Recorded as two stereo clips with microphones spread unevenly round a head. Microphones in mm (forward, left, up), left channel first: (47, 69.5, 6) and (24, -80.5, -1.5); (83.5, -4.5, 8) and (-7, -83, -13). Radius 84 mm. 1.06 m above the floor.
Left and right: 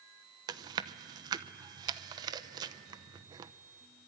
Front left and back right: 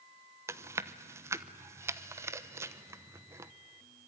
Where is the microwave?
No microwave in this recording.